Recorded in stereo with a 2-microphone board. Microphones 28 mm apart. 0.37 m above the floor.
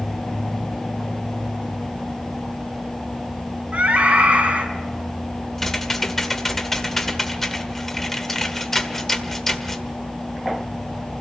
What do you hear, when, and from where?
3.7 s a scream: 55° right (ahead or behind), 4.5 m
5.6 s typing on a keyboard: 10° left (ahead or behind), 1.5 m